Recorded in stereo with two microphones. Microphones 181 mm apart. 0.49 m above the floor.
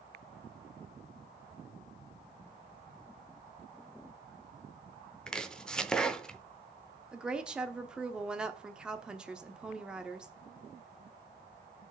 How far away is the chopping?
About 0.6 m.